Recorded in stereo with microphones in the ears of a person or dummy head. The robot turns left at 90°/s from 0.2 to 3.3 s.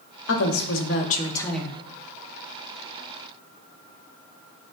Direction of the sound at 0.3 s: 115° left.